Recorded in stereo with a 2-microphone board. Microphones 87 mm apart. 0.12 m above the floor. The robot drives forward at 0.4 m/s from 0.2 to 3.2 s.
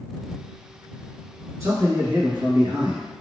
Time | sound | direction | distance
1.6 | a man speaking | 40° right (ahead or behind) | 1.7 m